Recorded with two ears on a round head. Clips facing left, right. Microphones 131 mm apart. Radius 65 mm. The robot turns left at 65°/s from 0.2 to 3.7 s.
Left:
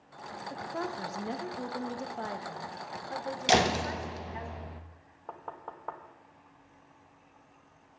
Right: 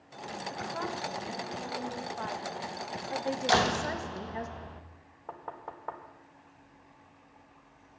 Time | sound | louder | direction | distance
0.5 | a woman speaking | left 1 dB | 155° left | 1.4 m
3.5 | a door slam | left 2 dB | 25° left (ahead or behind) | 0.8 m
5.3 | knocking | right 1 dB | 5° right (ahead or behind) | 1.1 m